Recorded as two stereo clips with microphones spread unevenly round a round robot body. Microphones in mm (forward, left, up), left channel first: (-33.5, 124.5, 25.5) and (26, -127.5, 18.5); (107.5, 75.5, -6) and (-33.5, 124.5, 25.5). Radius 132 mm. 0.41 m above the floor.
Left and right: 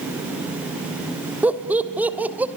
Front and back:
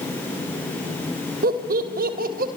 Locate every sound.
1.4 s laughter: 160° right, 2.5 m